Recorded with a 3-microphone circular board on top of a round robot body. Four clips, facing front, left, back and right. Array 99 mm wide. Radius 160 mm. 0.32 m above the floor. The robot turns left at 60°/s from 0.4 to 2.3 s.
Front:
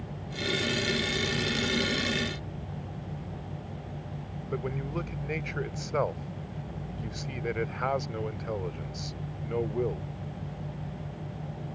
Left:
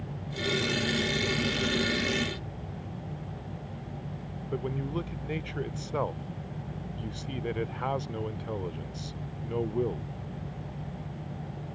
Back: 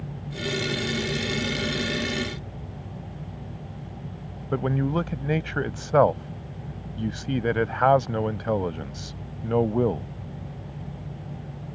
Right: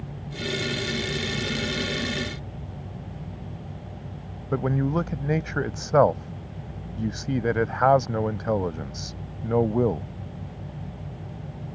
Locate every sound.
4.5 s a man speaking: 130° right